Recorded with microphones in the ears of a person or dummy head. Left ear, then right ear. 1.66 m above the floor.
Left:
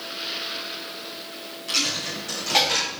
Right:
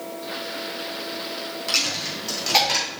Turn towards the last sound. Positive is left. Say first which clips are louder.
# right 1 dB
turn(degrees=-15)  # may be behind; listen again after turning